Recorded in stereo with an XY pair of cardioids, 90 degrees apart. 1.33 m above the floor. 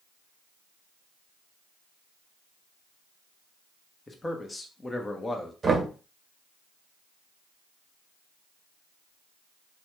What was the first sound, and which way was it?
A man speaking, 25° left.